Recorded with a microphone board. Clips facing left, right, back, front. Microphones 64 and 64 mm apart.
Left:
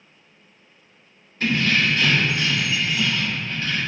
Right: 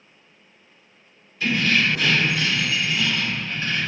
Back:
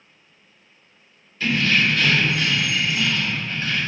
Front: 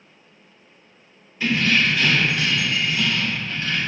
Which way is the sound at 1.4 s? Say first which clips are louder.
Even, even; 70° left.